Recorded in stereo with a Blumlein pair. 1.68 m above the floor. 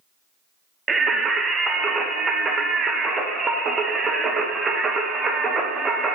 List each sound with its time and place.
0.9 s singing: 15° right, 0.7 m